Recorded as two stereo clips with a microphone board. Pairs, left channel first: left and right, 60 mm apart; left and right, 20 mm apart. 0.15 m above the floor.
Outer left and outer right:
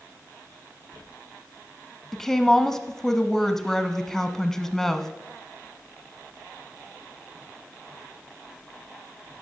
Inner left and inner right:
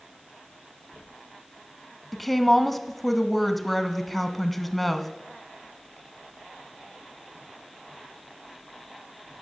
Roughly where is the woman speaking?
Centre.